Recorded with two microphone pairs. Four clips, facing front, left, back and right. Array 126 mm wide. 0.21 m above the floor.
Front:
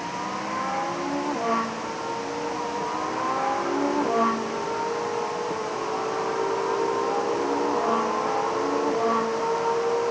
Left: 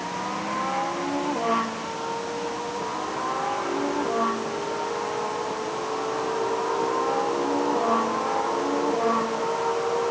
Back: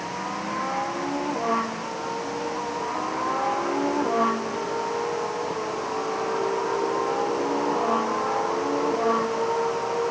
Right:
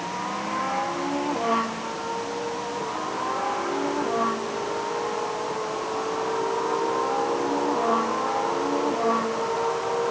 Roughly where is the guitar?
No guitar in this recording.